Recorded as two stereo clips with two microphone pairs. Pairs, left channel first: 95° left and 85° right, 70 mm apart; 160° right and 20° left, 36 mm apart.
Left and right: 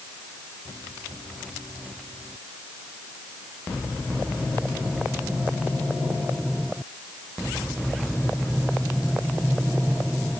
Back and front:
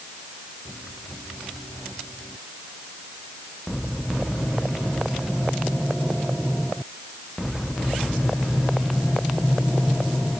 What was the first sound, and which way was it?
Only background noise.